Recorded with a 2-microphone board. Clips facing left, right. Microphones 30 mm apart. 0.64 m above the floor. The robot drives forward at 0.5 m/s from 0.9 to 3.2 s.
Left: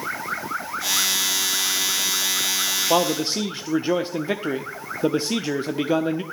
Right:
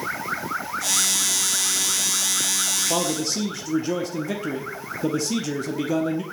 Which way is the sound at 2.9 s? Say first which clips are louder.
Left 4 dB; 35° left (ahead or behind).